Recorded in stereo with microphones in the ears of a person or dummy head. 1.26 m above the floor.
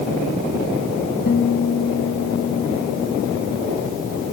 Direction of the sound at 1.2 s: 55° left (ahead or behind).